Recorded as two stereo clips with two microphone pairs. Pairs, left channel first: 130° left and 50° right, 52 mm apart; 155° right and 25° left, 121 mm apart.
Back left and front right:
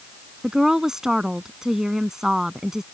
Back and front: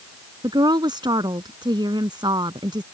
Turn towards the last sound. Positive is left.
turn(degrees=30)